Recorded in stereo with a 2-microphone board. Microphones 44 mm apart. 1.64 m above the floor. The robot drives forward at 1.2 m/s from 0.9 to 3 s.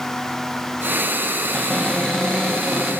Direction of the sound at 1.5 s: 15° left (ahead or behind).